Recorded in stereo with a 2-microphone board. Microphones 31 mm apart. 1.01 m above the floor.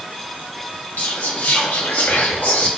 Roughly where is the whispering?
Left.